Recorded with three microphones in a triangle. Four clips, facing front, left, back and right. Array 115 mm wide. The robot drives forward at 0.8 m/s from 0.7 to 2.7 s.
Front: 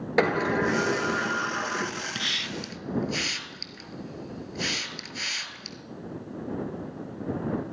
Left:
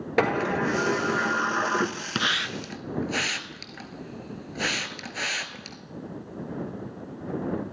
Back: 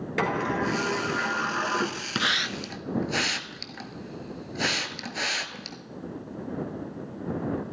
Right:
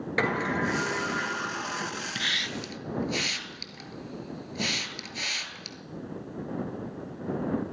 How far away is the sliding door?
About 1.1 m.